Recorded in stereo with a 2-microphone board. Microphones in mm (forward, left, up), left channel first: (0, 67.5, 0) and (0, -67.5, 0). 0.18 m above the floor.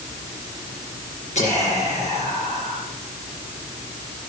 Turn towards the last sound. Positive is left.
turn(degrees=60)  # may be behind; listen again after turning